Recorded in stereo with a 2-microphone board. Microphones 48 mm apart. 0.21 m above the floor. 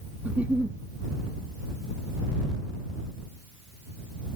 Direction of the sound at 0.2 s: 30° right (ahead or behind).